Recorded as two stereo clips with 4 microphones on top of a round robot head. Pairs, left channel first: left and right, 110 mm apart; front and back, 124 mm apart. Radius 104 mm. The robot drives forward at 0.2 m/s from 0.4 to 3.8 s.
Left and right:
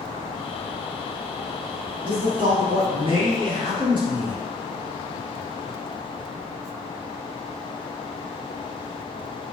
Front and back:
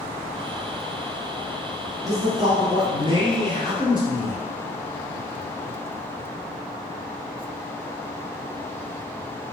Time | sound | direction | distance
2.0 | a man speaking | 120° right | 1.4 m